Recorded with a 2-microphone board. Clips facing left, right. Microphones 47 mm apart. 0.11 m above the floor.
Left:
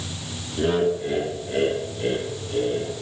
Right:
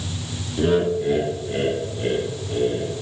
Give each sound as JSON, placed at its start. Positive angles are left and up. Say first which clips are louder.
{"t": 0.6, "sound": "laughter", "louder": "right 2 dB", "side_deg": 0, "distance_m": 1.1}